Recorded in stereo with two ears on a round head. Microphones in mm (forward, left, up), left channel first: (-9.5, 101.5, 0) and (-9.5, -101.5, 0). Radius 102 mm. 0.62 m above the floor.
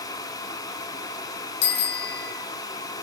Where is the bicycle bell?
75° left (ahead or behind), 4.5 m.